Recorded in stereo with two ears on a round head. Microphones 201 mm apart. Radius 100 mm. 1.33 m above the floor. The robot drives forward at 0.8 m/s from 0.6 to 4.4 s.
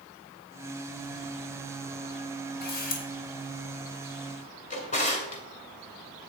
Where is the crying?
No crying in this recording.